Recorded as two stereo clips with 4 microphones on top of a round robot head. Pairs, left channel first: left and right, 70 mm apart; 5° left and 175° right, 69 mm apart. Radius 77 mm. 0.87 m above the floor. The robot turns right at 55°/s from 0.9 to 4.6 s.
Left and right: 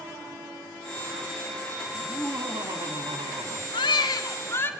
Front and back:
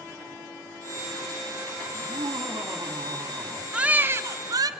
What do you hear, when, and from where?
1.9 s laughter: straight behind, 2.5 m; by 3.6 s 85° right, 2.5 m
3.7 s a baby crying: 105° left, 0.9 m; by 4.7 s 155° left, 0.9 m